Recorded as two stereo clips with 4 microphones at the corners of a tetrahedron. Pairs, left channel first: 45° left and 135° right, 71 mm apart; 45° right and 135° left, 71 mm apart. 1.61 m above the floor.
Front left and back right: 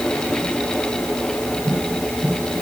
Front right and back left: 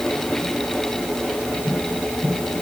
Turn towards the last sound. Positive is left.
No sound to turn to.